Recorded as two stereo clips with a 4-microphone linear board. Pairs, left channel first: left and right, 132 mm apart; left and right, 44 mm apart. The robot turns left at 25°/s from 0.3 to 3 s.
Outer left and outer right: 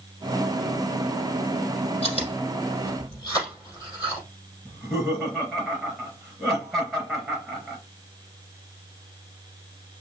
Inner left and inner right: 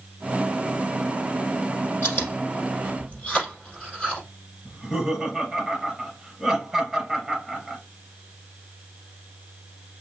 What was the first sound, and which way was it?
Chewing, 50° left (ahead or behind).